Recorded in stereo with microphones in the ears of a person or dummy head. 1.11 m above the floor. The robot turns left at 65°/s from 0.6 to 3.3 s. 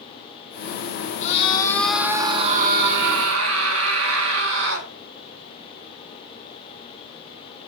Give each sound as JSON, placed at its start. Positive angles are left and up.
{"t": 1.2, "sound": "a scream", "azimuth_deg": 45, "distance_m": 2.0}